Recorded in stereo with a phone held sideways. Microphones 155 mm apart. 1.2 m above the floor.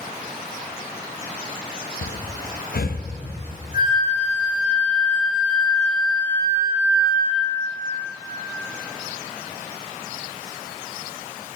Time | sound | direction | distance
2.0 | breathing | 75° left (ahead or behind) | 0.9 m
3.7 | a flute | 75° left (ahead or behind) | 3 m